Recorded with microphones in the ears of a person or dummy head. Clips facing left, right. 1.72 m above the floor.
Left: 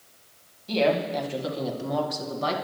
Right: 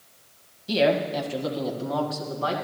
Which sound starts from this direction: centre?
A woman speaking, at 0.7 s.